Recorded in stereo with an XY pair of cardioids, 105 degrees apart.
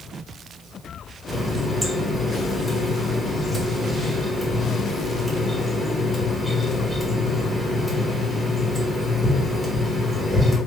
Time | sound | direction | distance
1.3 | a running tap | 5° right | 1.3 m